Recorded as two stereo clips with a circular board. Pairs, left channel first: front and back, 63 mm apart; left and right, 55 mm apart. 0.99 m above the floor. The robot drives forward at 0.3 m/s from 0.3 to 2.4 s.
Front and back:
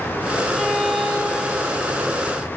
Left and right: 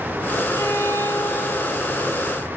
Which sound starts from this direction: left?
A violin, at 0.5 s.